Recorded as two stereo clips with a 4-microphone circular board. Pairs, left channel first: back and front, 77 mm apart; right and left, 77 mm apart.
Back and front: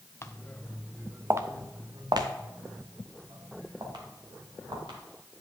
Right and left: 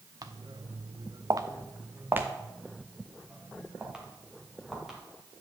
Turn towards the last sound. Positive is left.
turn(degrees=5)